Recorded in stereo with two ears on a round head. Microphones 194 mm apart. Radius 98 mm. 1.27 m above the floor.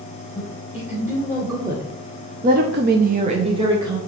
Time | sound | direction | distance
0.3 | a woman speaking | 5° right (ahead or behind) | 3 m